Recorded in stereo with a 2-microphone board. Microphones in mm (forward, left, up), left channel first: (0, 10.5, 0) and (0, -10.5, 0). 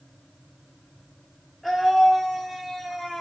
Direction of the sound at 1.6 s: 10° right (ahead or behind).